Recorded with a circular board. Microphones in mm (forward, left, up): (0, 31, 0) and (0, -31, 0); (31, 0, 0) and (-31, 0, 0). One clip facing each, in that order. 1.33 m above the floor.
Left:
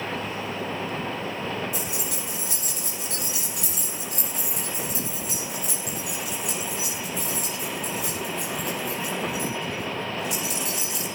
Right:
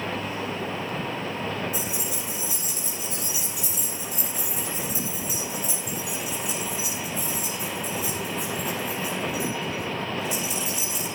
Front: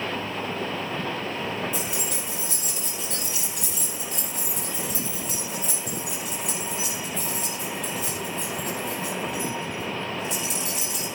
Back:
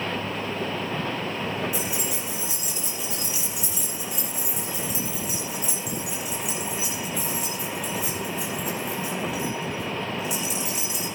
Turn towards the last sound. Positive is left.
turn(degrees=95)